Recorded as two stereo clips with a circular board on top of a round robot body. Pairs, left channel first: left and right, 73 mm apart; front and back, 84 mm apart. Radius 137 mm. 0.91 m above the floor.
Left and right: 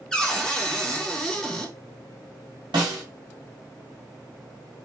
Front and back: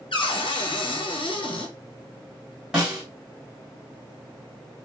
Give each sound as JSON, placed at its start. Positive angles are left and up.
{"t": 0.1, "sound": "a cupboard door", "azimuth_deg": 5, "distance_m": 1.3}
{"t": 2.7, "sound": "a snare drum", "azimuth_deg": -100, "distance_m": 1.3}